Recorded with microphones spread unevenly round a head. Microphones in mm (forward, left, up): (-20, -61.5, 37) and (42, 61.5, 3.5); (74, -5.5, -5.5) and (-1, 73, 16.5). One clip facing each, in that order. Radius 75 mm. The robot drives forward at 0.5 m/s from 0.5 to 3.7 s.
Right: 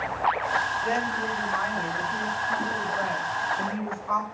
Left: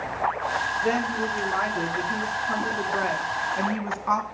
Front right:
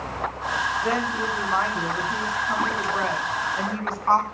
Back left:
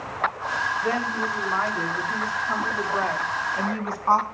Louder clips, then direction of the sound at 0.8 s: Left 3 dB, front right 1 dB; 40° left.